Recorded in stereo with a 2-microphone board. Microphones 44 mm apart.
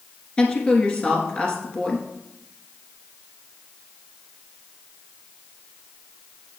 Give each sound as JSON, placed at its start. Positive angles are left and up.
{"t": 0.4, "sound": "a woman speaking", "side_deg": 25, "distance_m": 1.6}